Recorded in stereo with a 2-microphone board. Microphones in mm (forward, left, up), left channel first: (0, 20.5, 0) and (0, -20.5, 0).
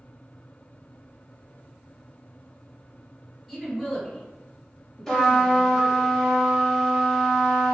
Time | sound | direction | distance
3.5 | a woman speaking | centre (ahead or behind) | 1.8 m
5.1 | a trumpet | 15° left (ahead or behind) | 1.0 m